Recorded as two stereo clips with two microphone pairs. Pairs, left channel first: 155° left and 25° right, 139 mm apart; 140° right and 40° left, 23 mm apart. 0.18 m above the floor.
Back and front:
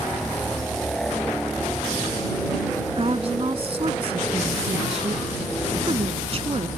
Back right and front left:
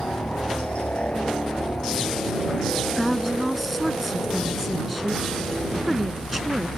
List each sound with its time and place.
0.0 s a helicopter: 115° right; by 6.8 s 125° right
3.0 s a woman speaking: 45° right